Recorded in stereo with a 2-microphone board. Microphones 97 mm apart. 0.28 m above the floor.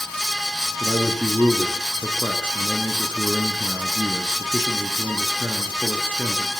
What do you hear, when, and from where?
0.8 s a man speaking: 20° right (ahead or behind), 4 m